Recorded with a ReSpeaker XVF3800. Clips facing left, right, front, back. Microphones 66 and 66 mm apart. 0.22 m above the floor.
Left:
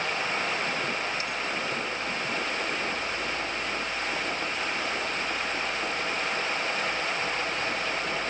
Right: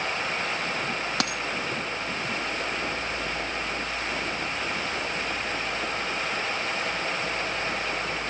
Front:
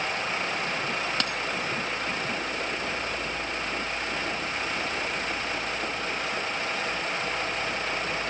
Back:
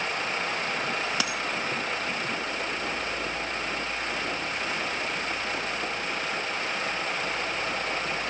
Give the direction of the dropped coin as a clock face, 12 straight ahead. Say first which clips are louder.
Right 3 dB, even; 3 o'clock.